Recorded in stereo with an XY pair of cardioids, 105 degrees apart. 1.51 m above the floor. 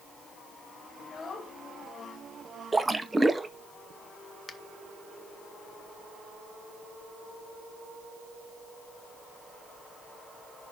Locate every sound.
1.0 s a child speaking: 45° left, 1.7 m
2.7 s a splash: 15° right, 0.9 m
4.5 s a finger snap: 35° left, 1.1 m